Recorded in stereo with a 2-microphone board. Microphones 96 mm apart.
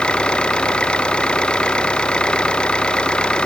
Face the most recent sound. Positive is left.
turn(degrees=10)  # may be behind; listen again after turning